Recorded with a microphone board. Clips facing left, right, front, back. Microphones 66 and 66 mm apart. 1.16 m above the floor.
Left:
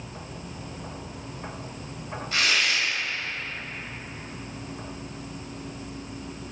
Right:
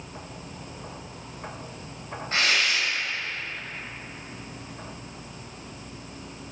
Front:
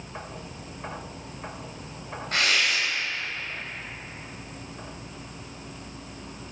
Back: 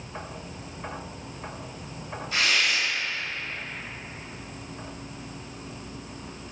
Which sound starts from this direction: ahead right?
Tearing paper, at 2.3 s.